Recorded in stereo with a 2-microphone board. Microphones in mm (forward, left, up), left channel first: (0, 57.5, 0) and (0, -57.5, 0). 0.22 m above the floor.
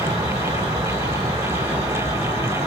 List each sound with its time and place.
0.0 s an insect: 75° right (ahead or behind), 1.8 m